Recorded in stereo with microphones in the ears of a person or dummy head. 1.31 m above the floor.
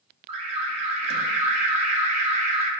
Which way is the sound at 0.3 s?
35° right (ahead or behind).